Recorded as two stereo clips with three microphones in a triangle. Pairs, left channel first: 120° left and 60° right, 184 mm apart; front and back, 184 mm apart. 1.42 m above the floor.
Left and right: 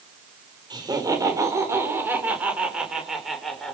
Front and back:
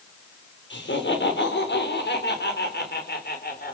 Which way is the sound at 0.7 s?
10° left.